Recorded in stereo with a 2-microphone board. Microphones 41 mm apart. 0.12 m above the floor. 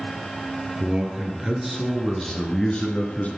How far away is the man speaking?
About 2.5 m.